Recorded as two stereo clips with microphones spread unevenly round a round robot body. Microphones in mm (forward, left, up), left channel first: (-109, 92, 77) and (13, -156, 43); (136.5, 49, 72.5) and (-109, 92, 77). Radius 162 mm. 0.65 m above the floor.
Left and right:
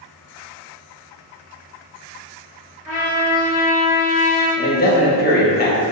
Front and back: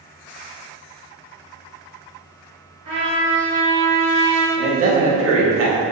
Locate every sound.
2.9 s a trumpet: 155° left, 1.9 m
4.6 s a man speaking: 175° left, 0.9 m